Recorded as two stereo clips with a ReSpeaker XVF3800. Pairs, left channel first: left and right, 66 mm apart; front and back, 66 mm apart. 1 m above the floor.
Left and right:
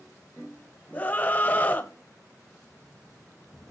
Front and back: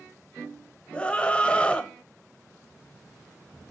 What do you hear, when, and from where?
0.9 s a scream: 55° left, 0.9 m